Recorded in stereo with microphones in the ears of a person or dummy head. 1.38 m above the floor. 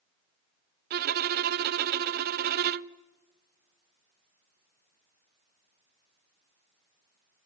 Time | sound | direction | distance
0.9 | a violin | 50° right (ahead or behind) | 0.5 m